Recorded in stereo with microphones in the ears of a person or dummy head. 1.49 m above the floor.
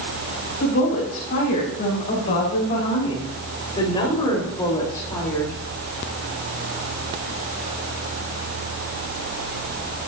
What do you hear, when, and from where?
0.6 s a woman speaking: 55° left (ahead or behind), 6.5 m; by 5.5 s 15° left (ahead or behind), 4 m